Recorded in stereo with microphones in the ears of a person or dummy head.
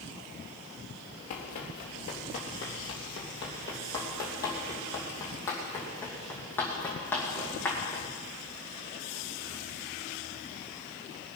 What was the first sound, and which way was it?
Running footsteps, 35° left (ahead or behind).